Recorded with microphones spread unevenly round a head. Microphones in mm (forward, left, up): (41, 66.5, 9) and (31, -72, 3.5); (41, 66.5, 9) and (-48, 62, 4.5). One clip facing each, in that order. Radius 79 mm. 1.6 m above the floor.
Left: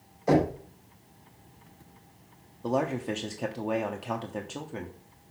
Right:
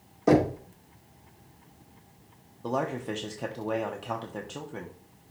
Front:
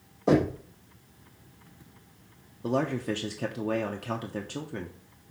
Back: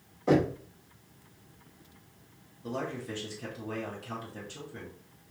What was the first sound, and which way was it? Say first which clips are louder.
Knocking: right 2 dB, front 2 dB; 70° right.